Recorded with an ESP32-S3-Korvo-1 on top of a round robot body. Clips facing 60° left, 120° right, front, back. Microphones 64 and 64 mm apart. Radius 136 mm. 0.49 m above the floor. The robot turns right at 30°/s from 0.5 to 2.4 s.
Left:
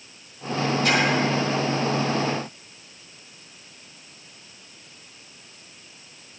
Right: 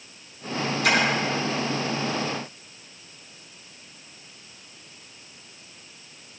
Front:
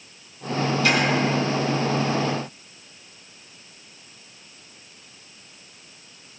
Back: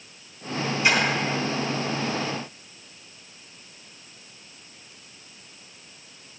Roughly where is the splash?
Right.